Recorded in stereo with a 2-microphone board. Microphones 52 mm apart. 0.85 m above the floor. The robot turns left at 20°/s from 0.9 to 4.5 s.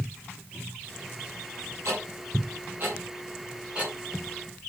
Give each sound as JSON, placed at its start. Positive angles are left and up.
{"t": 1.9, "sound": "ticking", "side_deg": -60, "distance_m": 9.5}